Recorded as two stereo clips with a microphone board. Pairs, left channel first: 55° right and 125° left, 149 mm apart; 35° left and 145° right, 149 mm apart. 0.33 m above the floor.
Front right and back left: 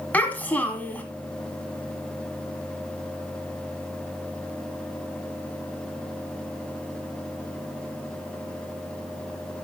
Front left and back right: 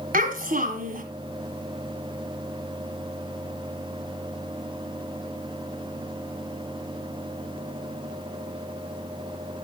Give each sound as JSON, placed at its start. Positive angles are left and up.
{"t": 0.1, "sound": "a child speaking", "azimuth_deg": -135, "distance_m": 2.0}